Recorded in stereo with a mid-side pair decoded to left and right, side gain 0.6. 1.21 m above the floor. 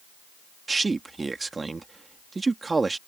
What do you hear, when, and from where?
0.7 s a man speaking: 20° right